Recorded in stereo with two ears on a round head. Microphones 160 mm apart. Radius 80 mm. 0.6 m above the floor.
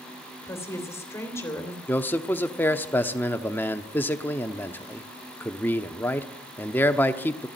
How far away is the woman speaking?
About 2.5 m.